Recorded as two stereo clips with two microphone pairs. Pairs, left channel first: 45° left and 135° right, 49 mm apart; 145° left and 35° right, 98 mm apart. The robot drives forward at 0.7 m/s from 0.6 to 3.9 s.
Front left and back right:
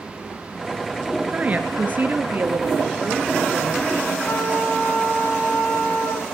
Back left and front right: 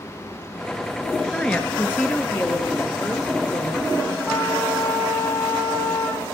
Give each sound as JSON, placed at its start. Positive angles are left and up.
{"t": 1.3, "sound": "a woman speaking", "azimuth_deg": -135, "distance_m": 1.3}
{"t": 4.3, "sound": "a trumpet", "azimuth_deg": 65, "distance_m": 3.5}